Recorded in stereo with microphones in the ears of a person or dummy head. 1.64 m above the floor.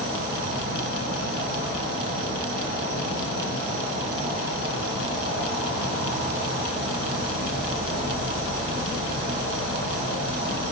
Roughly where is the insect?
Right.